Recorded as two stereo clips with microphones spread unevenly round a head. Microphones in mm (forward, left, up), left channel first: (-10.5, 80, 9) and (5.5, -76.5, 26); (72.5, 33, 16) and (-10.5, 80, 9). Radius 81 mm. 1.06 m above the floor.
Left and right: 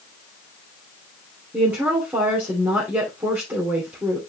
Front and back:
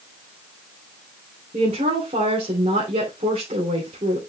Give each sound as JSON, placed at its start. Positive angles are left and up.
{"t": 1.5, "sound": "a woman speaking", "azimuth_deg": -165, "distance_m": 3.0}